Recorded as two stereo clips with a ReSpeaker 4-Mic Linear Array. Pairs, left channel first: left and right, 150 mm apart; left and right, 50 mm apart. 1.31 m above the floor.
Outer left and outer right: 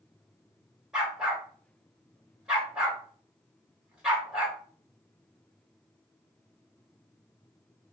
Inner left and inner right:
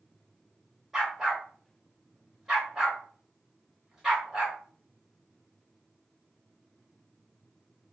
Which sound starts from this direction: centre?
A dog barking, at 0.9 s.